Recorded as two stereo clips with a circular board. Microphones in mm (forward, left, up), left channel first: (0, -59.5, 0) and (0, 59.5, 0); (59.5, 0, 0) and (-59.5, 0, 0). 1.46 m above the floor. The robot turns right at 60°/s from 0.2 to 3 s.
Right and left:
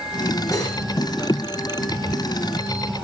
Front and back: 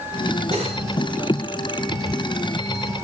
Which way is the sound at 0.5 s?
155° right.